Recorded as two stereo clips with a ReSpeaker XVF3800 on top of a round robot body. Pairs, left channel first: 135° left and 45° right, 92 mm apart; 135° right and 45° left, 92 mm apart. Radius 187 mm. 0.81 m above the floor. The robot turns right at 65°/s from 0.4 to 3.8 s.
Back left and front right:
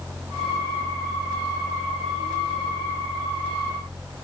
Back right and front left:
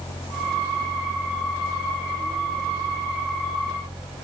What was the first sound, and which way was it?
Only background noise.